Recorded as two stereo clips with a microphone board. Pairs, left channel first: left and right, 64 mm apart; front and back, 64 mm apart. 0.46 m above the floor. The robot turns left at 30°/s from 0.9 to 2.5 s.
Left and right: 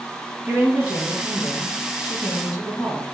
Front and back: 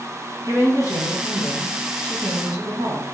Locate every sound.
0.5 s a woman speaking: 145° right, 4 m; by 3.0 s 165° left, 4 m